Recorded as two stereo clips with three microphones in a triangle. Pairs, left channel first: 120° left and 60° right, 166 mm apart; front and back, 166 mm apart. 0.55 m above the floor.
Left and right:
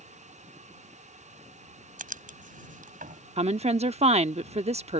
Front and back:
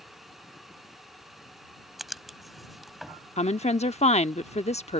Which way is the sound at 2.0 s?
90° right.